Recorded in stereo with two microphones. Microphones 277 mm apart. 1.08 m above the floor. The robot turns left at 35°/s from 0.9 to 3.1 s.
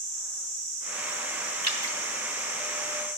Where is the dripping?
70° right (ahead or behind), 1.2 m; by 2.0 s 75° right (ahead or behind), 1.2 m.